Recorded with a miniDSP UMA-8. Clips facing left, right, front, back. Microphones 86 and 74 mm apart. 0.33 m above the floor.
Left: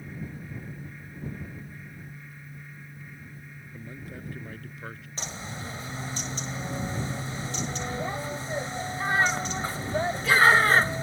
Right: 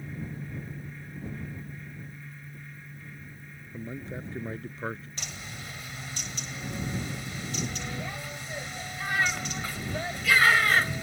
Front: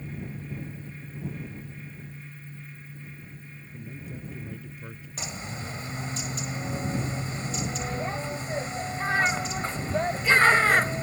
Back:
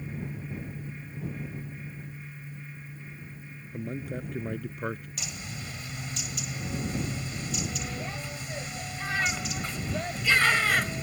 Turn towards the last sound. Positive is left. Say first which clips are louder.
# left 4 dB, front 3 dB
turn(degrees=45)